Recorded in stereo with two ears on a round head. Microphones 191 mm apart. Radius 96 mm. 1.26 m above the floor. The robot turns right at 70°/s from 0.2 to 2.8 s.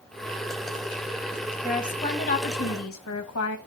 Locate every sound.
1.6 s a woman speaking: 10° right, 1.4 m; by 3.6 s 70° left, 1.4 m